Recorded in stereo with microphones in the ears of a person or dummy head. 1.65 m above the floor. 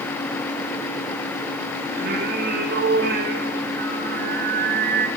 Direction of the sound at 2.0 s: 50° right (ahead or behind).